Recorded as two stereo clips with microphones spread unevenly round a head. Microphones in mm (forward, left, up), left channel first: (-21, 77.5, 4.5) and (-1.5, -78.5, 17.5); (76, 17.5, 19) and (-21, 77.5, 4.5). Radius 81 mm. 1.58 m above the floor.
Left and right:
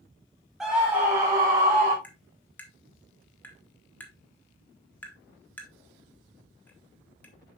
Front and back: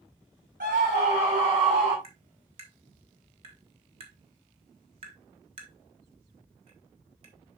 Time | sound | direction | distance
0.6 | a scream | 170° right | 1.4 m
2.0 | tapping | straight behind | 1.3 m